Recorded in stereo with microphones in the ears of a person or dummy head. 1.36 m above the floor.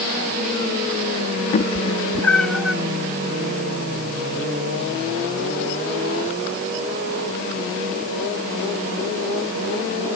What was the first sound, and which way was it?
A cat meowing, 40° left (ahead or behind).